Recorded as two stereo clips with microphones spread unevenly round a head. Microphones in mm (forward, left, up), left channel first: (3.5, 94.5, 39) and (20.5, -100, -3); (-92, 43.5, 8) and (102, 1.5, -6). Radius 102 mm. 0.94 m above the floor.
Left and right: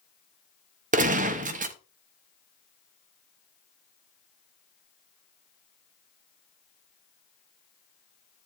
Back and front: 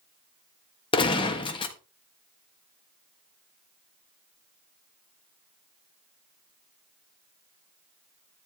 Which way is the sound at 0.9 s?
125° right.